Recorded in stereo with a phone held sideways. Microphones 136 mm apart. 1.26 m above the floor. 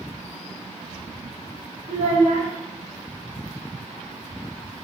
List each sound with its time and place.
1.9 s a child speaking: 60° right (ahead or behind), 1.3 m